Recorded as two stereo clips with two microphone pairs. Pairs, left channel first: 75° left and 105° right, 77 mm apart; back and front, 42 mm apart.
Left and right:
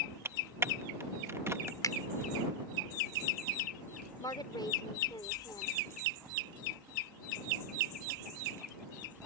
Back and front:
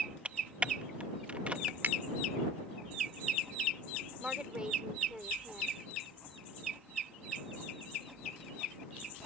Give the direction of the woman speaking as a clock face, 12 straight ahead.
10 o'clock.